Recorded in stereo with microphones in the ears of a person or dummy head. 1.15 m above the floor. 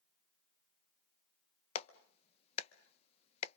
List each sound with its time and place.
1.8 s a clap: 35° left (ahead or behind), 0.8 m